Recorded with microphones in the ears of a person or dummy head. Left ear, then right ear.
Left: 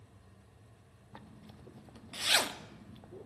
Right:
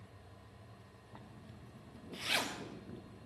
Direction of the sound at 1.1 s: 25° left (ahead or behind).